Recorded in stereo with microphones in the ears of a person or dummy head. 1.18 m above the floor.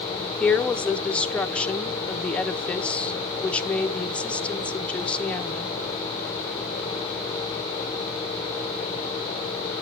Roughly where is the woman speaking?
Centre.